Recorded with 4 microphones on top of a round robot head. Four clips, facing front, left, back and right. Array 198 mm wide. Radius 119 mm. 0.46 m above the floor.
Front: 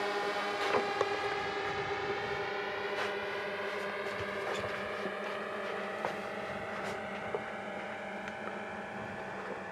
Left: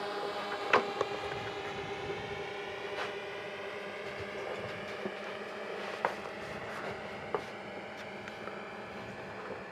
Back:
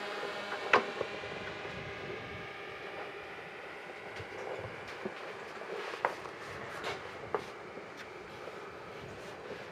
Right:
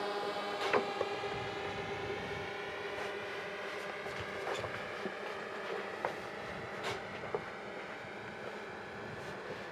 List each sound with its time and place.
0.0 s a drone: straight ahead; by 9.7 s 25° left